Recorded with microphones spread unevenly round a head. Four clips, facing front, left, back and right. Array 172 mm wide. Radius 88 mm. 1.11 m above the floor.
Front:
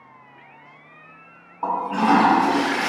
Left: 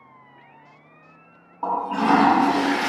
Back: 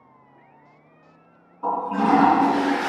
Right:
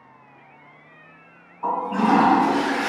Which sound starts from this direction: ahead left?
A toilet flushing, at 1.6 s.